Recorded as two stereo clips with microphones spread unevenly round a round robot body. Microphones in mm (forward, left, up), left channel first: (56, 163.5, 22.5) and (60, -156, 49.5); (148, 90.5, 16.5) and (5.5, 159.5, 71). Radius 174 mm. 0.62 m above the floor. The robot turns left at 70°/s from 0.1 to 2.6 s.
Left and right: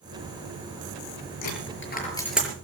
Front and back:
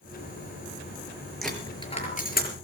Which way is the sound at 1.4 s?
65° left.